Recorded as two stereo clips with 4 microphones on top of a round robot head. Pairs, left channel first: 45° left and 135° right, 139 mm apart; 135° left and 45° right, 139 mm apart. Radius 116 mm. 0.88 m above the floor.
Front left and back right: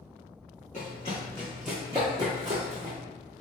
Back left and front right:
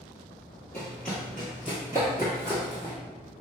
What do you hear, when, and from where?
0.7 s running footsteps: 60° left, 1.0 m; by 2.9 s 105° right, 1.2 m